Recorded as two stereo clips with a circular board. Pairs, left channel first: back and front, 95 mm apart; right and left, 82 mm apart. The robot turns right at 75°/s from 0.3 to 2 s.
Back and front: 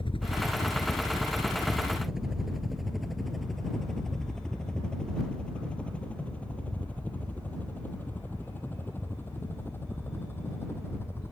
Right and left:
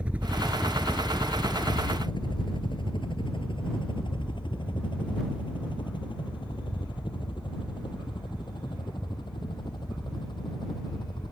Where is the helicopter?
165° left; by 11.3 s 115° right.